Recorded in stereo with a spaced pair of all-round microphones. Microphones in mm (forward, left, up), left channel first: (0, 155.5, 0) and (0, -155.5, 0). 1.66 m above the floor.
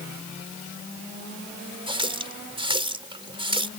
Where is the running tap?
15° right (ahead or behind).